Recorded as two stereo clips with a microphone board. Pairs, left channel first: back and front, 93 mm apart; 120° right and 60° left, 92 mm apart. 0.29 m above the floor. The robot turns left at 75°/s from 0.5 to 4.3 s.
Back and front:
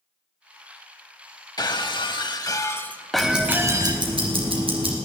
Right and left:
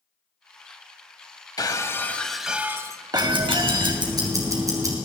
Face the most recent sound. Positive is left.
turn(degrees=10)